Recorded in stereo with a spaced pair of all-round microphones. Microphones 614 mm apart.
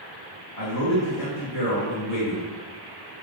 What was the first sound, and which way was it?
A man speaking, 70° left (ahead or behind).